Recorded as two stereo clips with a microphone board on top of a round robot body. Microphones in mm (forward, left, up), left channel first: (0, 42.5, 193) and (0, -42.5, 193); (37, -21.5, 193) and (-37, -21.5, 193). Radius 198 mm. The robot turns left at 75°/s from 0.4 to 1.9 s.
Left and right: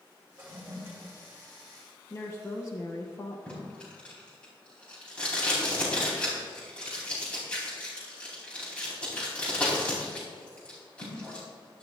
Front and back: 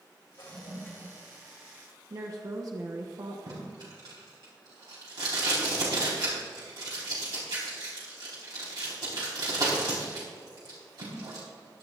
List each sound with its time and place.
0.4 s a toilet flushing: 35° right, 2.5 m; by 1.1 s 90° right, 2.5 m
2.1 s a woman speaking: 140° left, 1.2 m
3.5 s tape being pulled: 165° left, 4 m